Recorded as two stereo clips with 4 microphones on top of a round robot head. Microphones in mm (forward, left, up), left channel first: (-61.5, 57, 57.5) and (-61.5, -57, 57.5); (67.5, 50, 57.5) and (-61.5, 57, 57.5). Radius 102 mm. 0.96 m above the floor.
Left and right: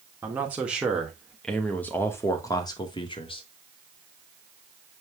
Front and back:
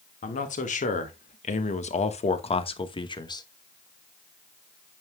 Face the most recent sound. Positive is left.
turn(degrees=50)